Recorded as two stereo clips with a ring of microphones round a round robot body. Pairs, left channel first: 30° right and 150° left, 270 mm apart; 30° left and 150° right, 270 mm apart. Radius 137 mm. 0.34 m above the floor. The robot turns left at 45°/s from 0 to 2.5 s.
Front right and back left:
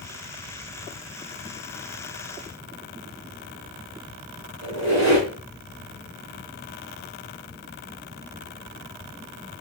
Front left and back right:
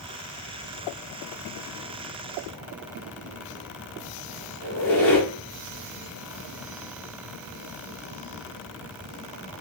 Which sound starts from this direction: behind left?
A squeak, at 4.6 s.